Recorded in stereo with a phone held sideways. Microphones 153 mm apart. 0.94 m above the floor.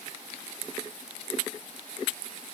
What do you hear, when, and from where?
Only background noise.